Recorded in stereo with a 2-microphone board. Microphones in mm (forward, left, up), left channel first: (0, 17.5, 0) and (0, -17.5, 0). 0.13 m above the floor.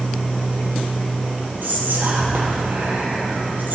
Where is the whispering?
65° right (ahead or behind), 4 m.